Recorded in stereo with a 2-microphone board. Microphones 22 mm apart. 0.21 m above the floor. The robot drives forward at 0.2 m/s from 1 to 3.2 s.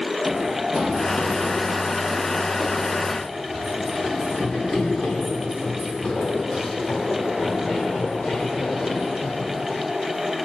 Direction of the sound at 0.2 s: 25° right (ahead or behind).